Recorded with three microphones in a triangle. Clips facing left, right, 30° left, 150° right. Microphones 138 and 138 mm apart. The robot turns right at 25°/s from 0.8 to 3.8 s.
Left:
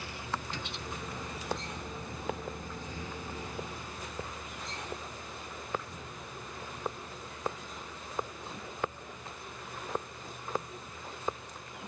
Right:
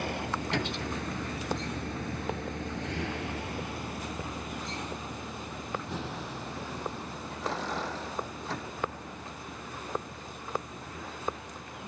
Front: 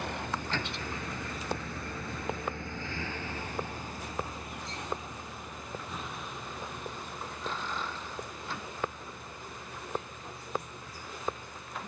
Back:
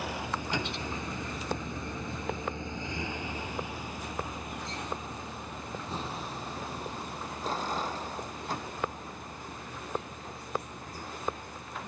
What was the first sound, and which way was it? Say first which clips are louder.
A vehicle: right 6 dB, back 1 dB; 65° right.